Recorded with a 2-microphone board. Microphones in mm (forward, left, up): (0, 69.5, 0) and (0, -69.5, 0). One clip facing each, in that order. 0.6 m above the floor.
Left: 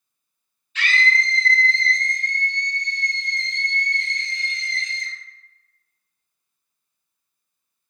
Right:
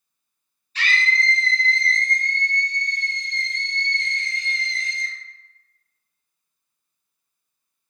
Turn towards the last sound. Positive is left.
turn(degrees=70)  # may be behind; listen again after turning